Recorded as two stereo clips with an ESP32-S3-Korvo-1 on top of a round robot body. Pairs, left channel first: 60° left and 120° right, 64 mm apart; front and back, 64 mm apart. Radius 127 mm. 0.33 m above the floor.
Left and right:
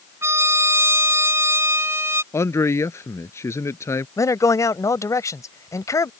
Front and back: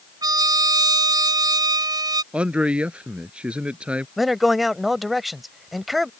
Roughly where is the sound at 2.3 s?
Left.